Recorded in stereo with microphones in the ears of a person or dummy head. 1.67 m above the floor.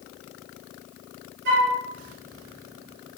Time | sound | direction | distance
1.4 | a flute | 65° right (ahead or behind) | 3.5 m